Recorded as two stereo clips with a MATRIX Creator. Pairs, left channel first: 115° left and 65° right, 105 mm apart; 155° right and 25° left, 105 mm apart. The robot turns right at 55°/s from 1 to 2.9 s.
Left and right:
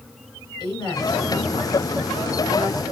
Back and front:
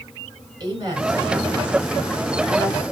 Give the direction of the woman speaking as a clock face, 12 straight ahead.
10 o'clock.